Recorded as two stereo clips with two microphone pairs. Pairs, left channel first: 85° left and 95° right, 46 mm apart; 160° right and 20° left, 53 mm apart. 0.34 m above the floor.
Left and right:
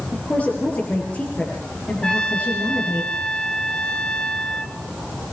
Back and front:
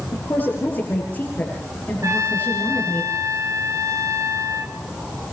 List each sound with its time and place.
0.1 s a woman speaking: 145° left, 8.5 m
2.0 s a trumpet: 15° left, 2.5 m